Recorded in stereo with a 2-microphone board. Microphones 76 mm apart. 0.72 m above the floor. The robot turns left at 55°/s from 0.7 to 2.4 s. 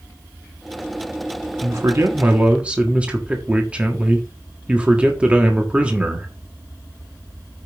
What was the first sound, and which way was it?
A man speaking, 120° right.